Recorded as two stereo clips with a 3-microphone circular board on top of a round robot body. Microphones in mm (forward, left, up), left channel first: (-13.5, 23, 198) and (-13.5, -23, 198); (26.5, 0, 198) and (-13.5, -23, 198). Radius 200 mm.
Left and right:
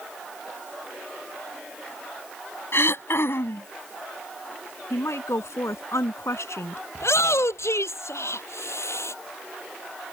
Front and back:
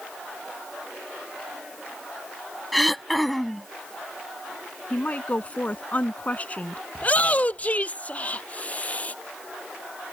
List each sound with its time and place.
2.7 s throat clearing: 120° left
4.9 s a woman speaking: 90° left
7.0 s a shout: 90° left